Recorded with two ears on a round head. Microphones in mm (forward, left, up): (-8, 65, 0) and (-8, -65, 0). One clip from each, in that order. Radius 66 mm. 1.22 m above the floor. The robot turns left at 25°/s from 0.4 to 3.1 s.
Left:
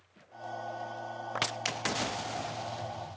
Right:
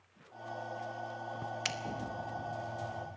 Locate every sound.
1.6 s a finger snap: centre (ahead or behind), 1.1 m